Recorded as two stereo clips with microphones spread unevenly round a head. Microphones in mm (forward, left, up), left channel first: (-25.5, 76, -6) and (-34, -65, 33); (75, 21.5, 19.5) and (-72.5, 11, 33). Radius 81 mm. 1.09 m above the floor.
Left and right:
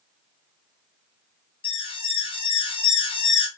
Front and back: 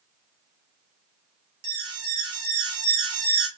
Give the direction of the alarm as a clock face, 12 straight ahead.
8 o'clock.